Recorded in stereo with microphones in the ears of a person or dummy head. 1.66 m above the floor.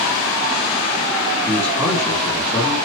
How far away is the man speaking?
About 2 m.